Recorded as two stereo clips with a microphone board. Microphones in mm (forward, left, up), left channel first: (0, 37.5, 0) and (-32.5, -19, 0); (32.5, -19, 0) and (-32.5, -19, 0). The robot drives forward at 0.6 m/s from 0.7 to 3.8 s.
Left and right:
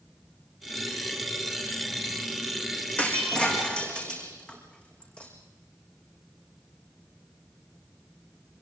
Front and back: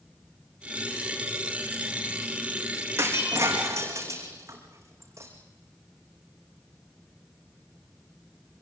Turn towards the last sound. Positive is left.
turn(degrees=135)